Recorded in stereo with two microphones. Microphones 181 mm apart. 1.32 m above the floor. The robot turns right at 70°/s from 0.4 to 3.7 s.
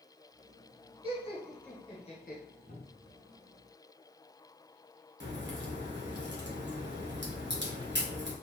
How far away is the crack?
About 1.4 m.